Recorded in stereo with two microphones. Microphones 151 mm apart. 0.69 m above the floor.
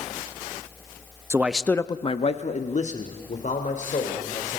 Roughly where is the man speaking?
Centre.